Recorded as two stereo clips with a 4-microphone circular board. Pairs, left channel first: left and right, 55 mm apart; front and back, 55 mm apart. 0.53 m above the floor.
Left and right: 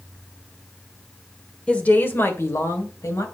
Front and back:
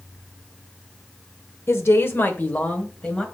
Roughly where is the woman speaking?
Ahead.